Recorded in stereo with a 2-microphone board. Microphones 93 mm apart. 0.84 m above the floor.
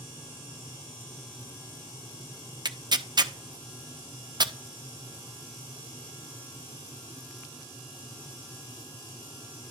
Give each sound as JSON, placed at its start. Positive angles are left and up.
{"t": 2.6, "sound": "tearing paper", "side_deg": -50, "distance_m": 0.5}